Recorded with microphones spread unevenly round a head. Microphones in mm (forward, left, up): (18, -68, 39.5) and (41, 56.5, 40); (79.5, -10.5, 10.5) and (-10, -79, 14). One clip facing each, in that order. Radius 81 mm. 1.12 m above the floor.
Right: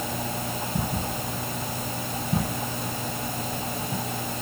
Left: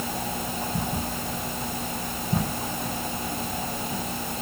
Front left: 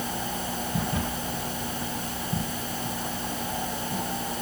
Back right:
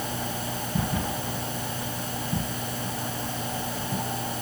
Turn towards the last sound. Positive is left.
No sound to turn to.